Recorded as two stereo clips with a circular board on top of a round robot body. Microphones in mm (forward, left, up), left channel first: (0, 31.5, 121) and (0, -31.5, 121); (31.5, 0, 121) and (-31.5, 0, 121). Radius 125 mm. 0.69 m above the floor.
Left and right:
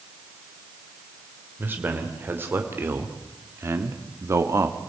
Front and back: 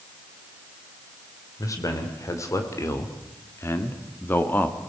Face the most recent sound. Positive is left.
turn(degrees=-65)